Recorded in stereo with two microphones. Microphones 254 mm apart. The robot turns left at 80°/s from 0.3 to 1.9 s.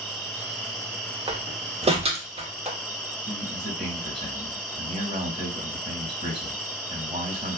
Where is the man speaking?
20° right (ahead or behind), 1.3 m.